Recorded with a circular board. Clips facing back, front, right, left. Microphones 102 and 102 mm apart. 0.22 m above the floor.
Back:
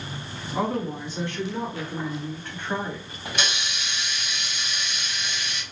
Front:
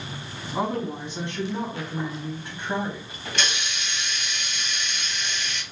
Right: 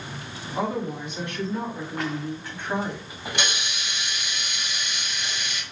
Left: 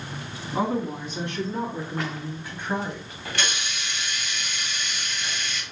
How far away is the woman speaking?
About 2 m.